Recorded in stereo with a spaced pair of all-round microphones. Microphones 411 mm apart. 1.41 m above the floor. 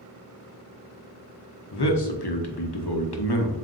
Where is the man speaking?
70° left (ahead or behind), 0.8 m.